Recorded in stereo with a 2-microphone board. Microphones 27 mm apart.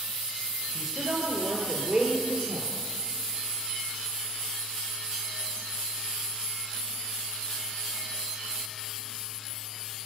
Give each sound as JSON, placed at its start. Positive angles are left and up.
{"t": 0.8, "sound": "a woman speaking", "side_deg": -15, "distance_m": 2.0}